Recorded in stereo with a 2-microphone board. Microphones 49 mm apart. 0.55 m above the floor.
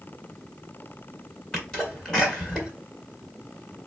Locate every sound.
1.5 s a sneeze: 10° left (ahead or behind), 1.9 m